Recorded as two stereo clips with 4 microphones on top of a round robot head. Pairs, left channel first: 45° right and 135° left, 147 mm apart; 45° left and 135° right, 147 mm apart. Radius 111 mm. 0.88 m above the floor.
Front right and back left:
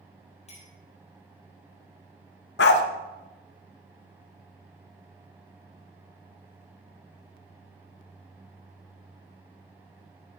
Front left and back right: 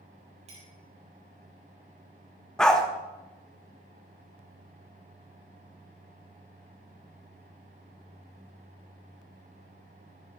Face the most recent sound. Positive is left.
turn(degrees=-40)